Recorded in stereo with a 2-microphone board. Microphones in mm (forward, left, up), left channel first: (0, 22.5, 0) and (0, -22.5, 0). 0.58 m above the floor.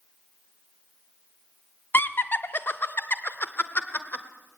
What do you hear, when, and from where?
1.9 s laughter: 45° left (ahead or behind), 0.9 m